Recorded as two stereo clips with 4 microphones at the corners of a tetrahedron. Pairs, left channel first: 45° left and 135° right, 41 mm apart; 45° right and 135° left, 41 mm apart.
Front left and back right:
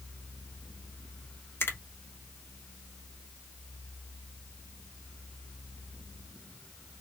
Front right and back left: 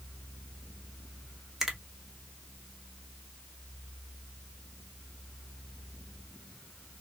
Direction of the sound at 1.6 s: 55° left.